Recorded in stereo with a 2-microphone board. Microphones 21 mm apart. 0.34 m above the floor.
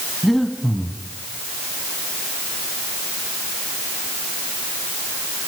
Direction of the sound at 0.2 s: Centre (ahead or behind).